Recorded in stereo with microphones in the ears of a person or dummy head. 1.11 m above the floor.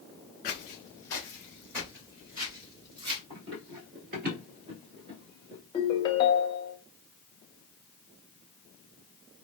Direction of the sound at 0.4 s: 30° left (ahead or behind).